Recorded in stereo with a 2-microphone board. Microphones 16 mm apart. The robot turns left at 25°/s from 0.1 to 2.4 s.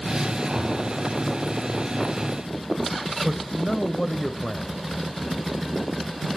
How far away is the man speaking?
About 1.0 m.